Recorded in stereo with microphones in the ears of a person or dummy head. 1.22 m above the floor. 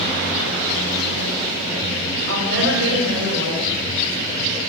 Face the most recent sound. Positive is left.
turn(degrees=-85)